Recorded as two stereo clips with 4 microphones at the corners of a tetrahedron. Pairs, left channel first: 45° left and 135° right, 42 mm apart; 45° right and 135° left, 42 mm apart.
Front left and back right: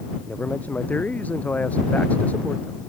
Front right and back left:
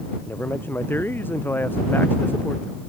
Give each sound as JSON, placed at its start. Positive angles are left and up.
{"t": 0.3, "sound": "a man speaking", "azimuth_deg": -10}